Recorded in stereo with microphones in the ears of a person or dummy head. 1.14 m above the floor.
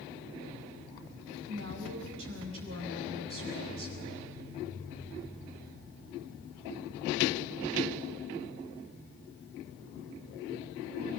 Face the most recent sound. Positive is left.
turn(degrees=-75)  # may be behind; listen again after turning